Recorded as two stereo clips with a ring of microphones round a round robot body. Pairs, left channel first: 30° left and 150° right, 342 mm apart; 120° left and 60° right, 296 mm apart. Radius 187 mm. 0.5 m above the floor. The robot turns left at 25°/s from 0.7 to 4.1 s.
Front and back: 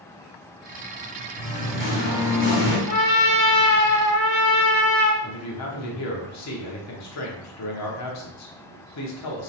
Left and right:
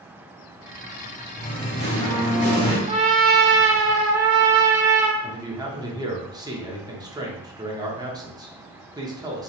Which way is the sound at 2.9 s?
10° left.